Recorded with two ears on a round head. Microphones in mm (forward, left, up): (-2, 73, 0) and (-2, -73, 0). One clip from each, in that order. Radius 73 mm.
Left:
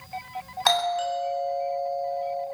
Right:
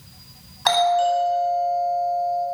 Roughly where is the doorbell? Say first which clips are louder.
Right 5 dB; centre.